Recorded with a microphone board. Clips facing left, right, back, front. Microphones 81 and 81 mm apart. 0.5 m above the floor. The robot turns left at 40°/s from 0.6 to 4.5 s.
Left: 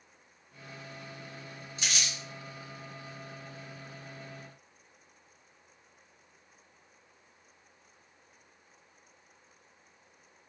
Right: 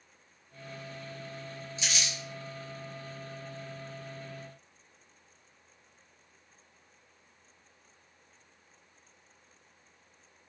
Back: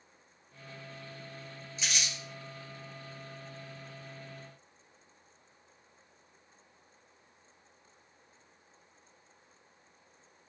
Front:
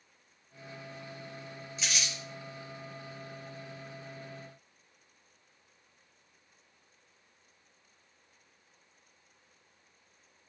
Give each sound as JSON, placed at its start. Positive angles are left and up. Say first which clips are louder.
{"t": 1.8, "sound": "crumpling", "louder": "even, even", "azimuth_deg": 90, "distance_m": 0.9}